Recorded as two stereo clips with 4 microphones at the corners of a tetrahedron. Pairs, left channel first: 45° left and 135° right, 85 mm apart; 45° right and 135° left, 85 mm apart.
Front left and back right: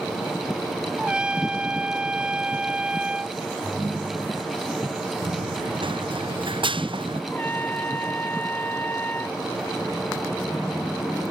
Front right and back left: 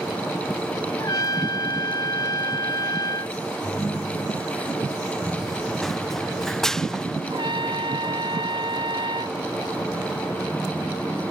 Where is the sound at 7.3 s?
115° left.